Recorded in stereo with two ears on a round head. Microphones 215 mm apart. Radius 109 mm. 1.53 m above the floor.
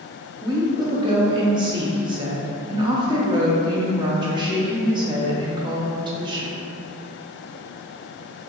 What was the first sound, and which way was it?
A woman speaking, 20° right (ahead or behind).